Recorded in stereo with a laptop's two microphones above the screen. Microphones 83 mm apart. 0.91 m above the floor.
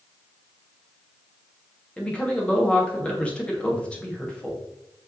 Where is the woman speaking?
15° left (ahead or behind), 1.2 m.